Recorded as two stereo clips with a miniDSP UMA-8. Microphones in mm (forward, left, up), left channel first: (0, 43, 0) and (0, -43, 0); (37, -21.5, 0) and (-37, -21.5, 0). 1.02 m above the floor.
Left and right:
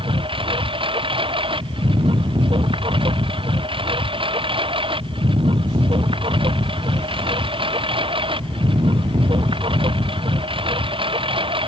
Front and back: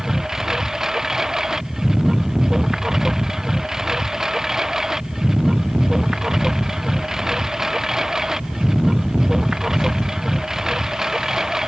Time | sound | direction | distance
0.0 | a lawn mower | 95° right | ?